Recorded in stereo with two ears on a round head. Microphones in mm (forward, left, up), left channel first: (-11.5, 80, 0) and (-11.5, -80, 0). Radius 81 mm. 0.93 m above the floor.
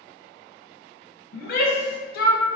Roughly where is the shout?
Left.